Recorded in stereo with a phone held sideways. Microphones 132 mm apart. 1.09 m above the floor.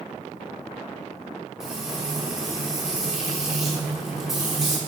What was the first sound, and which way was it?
Frying, 5° right (ahead or behind).